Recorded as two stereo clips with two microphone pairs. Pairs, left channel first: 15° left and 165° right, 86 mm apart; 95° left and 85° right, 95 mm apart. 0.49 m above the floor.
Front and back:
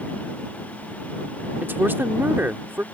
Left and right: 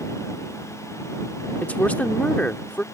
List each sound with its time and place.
1.6 s a woman speaking: 155° left